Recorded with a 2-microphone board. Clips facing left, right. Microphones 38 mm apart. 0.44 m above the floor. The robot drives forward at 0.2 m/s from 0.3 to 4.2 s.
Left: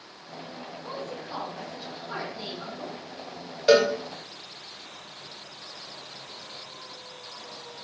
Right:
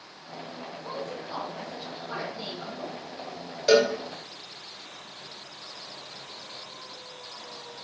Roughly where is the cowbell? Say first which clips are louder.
Left 1 dB; centre.